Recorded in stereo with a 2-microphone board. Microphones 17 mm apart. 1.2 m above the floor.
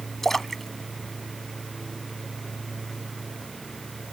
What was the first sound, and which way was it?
A splash, 15° left (ahead or behind).